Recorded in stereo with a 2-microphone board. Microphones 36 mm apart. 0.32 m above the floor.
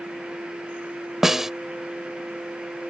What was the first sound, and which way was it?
A snare drum, 15° right (ahead or behind).